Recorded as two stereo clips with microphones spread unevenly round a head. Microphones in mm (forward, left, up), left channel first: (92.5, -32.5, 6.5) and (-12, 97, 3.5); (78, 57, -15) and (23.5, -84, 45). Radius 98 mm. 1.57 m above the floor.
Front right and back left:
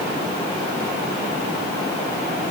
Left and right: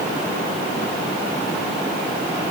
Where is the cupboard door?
No cupboard door in this recording.